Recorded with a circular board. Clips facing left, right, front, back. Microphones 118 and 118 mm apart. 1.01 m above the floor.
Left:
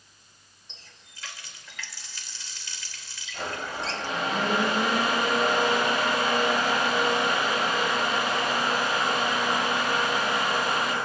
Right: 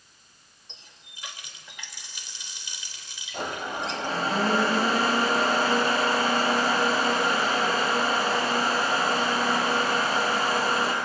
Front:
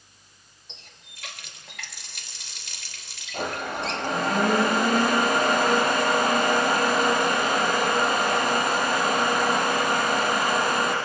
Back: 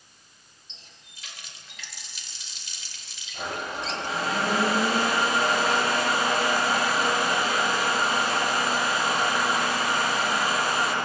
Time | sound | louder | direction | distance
0.7 | a running tap | right 1 dB, front 4 dB | 20° right | 3 m
3.3 | a blender | right 2 dB, front 3 dB | 35° right | 6.5 m